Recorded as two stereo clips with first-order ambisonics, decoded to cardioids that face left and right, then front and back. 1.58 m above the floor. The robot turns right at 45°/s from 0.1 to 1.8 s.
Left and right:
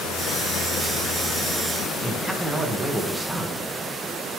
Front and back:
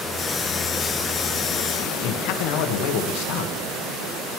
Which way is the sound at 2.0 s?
5° right.